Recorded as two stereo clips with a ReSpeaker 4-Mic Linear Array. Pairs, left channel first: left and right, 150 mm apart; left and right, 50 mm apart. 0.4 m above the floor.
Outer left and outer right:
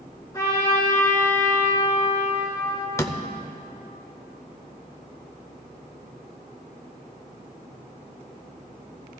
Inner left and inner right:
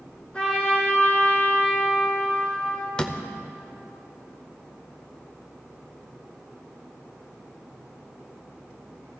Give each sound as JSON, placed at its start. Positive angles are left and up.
{"t": 0.3, "sound": "a trumpet", "side_deg": 25, "distance_m": 2.5}
{"t": 3.0, "sound": "a door slam", "side_deg": 15, "distance_m": 0.6}